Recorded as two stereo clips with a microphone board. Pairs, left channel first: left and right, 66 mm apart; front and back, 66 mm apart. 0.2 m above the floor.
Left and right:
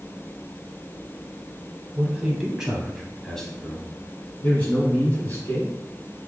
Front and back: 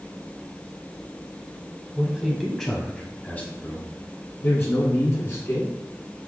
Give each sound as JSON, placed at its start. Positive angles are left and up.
{"t": 1.9, "sound": "a man speaking", "azimuth_deg": -115, "distance_m": 1.0}